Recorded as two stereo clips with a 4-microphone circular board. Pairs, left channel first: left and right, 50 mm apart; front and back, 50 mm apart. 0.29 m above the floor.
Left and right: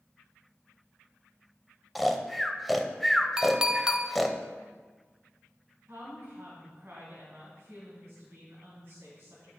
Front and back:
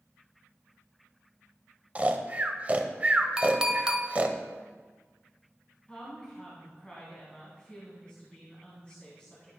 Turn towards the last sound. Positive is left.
turn(degrees=-70)